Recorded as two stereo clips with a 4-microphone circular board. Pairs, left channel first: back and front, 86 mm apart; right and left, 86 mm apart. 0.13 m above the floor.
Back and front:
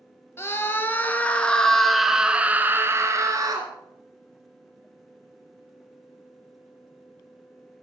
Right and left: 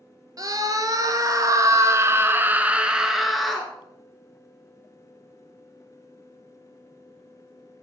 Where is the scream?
125° left, 2.5 m; by 3.7 s 5° right, 1.8 m.